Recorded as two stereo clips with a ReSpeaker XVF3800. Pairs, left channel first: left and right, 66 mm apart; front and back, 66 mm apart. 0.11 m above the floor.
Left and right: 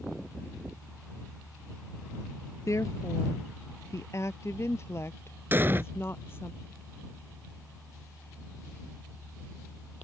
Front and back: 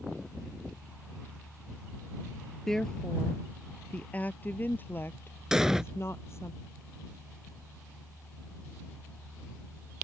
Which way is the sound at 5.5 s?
105° right.